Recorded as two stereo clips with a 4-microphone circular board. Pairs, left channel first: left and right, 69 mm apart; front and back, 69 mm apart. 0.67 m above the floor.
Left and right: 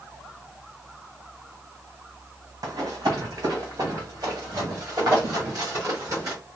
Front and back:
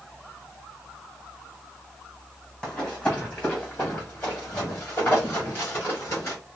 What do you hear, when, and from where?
2.6 s running footsteps: 75° right, 1.6 m; by 6.4 s 45° right, 3.5 m